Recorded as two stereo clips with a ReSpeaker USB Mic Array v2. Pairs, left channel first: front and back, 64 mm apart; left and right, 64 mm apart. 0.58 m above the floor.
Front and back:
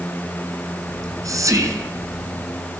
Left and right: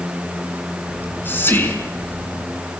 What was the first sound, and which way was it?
Whispering, 150° left.